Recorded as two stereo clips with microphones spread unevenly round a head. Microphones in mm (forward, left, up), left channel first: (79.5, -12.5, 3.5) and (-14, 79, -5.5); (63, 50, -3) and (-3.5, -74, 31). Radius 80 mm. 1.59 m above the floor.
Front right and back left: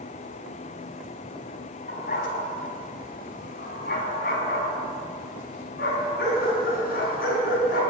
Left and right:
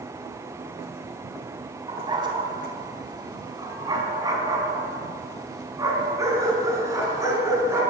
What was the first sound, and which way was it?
A dog barking, 70° right.